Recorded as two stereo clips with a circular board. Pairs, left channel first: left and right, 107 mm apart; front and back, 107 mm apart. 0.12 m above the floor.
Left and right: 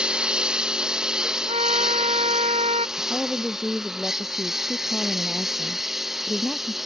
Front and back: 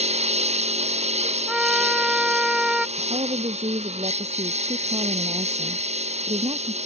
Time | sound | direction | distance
0.0 | a lawn mower | 170° right | ?
1.5 | a trumpet | 95° right | ?
3.0 | a woman speaking | 175° left | ?